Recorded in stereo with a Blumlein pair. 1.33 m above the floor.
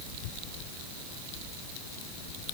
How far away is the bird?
I don't hear a bird.